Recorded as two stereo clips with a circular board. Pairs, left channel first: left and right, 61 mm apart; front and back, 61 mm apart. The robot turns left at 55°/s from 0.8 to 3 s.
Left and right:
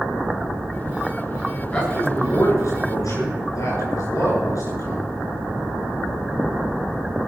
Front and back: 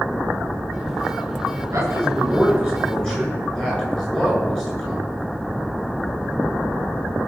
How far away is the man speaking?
About 8.5 m.